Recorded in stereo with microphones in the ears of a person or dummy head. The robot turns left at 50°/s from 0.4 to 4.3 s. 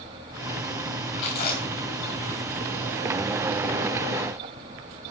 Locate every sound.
1.2 s chewing: 70° left (ahead or behind), 6.5 m; by 3.0 s 20° right (ahead or behind), 6.5 m